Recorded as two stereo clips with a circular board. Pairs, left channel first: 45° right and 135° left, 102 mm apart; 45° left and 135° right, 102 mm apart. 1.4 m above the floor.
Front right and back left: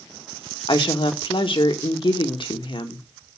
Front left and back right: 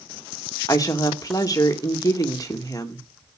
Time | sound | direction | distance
0.7 | a woman speaking | 10° right | 1.7 m